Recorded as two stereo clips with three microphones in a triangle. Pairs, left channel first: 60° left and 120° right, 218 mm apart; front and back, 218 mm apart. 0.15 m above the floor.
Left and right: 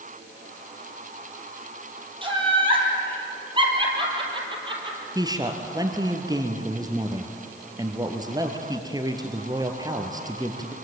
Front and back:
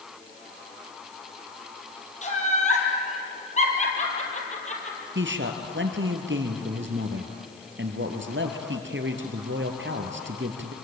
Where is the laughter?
55° right, 5 m.